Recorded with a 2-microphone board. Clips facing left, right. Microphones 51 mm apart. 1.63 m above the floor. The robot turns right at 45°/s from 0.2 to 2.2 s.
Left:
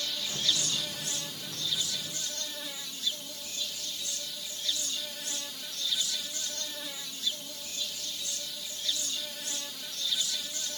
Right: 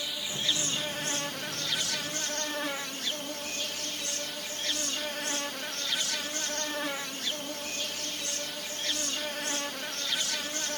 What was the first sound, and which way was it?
An insect, 160° right.